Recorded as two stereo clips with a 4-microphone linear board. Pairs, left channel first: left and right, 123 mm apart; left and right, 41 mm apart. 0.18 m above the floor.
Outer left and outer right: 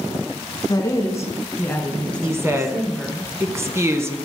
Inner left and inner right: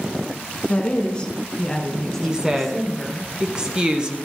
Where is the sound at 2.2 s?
20° right (ahead or behind), 1.3 m.